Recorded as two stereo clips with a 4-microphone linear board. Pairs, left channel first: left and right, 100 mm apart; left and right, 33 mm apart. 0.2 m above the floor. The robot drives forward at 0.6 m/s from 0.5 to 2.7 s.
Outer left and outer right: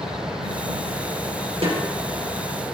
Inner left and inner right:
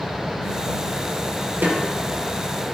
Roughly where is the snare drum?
Right.